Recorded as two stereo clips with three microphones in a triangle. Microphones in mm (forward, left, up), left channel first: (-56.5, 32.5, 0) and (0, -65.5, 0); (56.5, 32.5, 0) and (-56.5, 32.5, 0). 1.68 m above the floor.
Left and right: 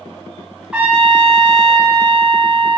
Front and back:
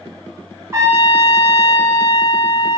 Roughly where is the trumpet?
Behind right.